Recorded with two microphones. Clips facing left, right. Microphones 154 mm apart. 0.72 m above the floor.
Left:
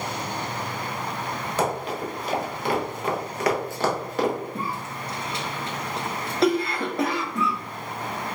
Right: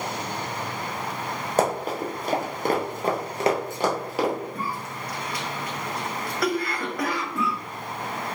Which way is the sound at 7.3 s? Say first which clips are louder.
Left 1 dB; 10° right (ahead or behind).